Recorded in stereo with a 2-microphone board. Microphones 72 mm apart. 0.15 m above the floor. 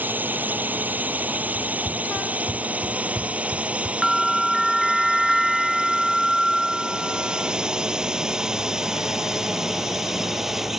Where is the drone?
25° right (ahead or behind); by 10.8 s 5° right (ahead or behind).